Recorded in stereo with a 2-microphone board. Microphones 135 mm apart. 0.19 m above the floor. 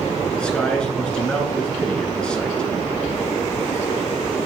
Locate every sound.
0.3 s a man speaking: 5° left (ahead or behind), 2.5 m